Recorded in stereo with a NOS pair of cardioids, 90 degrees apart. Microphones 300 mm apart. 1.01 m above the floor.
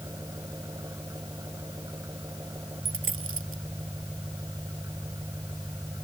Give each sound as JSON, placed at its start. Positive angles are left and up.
{"t": 0.0, "sound": "an engine running", "azimuth_deg": -10}
{"t": 2.9, "sound": "a dropped coin", "azimuth_deg": -40}